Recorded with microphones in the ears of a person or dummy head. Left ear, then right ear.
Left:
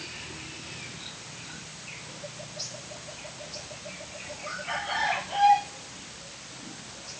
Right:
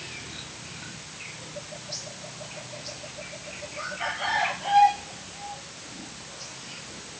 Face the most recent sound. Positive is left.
No sound to turn to.